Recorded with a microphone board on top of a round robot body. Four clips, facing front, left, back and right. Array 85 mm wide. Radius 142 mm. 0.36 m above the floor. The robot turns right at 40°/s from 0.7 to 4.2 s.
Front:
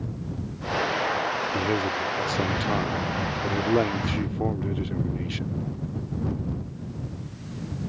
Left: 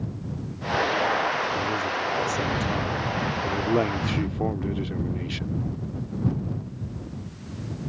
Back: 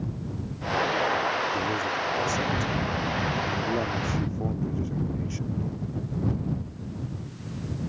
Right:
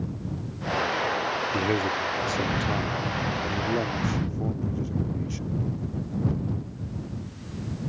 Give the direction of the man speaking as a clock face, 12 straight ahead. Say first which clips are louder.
Right 1 dB, front 2 dB; 2 o'clock.